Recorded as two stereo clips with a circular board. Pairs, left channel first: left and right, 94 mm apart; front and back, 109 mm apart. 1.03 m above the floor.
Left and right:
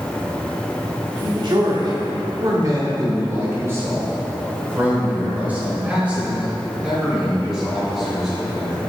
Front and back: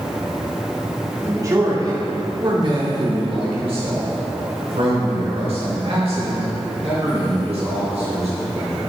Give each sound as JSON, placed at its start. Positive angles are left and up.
{"t": 1.2, "sound": "a man speaking", "azimuth_deg": -120, "distance_m": 1.9}